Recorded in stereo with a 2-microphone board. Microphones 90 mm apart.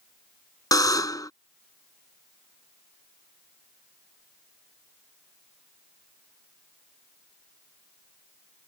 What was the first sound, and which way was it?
A buzzer, 40° left (ahead or behind).